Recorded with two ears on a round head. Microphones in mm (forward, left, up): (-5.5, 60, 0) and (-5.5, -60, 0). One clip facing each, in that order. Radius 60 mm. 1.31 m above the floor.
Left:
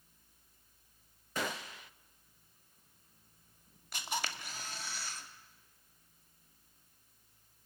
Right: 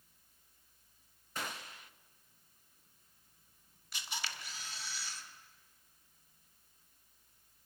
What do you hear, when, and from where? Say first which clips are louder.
1.4 s a gunshot: left 5 dB; 60° left (ahead or behind), 0.6 m
3.9 s a camera shutter: left 6 dB; 40° left (ahead or behind), 1.9 m